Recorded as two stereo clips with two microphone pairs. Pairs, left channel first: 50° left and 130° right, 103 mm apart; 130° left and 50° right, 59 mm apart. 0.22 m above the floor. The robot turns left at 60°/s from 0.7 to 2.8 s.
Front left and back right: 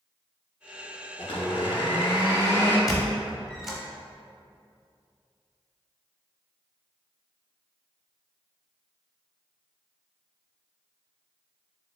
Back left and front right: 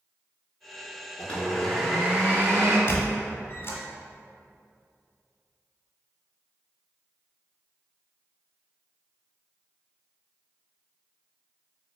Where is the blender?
70° left, 1.1 m; by 2.8 s 25° right, 1.1 m.